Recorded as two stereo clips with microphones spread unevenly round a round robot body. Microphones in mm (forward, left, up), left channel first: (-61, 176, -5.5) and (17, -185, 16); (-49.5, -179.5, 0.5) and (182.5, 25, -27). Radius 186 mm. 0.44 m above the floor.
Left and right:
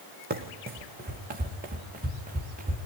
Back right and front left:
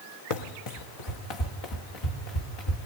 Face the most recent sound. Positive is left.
turn(degrees=-145)